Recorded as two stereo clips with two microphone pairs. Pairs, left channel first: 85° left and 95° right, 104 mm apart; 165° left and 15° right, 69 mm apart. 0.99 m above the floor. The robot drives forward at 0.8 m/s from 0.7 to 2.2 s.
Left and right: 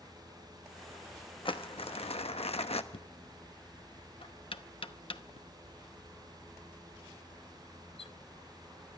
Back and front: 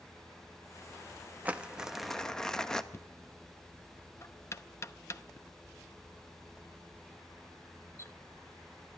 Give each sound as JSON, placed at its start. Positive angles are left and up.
{"t": 1.4, "sound": "crumpling", "azimuth_deg": 55, "distance_m": 1.1}
{"t": 2.9, "sound": "knocking", "azimuth_deg": 120, "distance_m": 0.7}